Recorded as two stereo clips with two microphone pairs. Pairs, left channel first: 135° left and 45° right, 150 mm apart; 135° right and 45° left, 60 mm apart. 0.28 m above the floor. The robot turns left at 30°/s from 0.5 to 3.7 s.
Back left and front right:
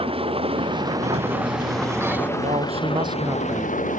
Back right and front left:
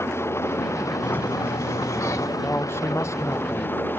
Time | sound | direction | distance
0.0 | an engine running | 95° right | ?
1.0 | a sliding door | 85° right | ?
2.4 | a man speaking | 85° right | ?